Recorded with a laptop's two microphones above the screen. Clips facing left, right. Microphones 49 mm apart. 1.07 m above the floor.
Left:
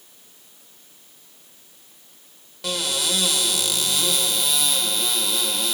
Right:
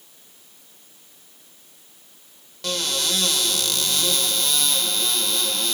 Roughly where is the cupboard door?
Centre.